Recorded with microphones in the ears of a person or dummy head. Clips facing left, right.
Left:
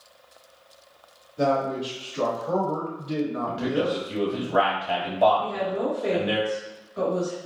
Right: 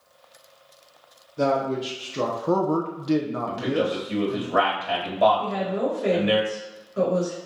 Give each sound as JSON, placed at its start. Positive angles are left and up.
{"t": 1.4, "sound": "a man speaking", "side_deg": -30, "distance_m": 1.2}
{"t": 3.5, "sound": "a man speaking", "side_deg": -30, "distance_m": 1.3}
{"t": 5.4, "sound": "a woman speaking", "side_deg": -30, "distance_m": 1.2}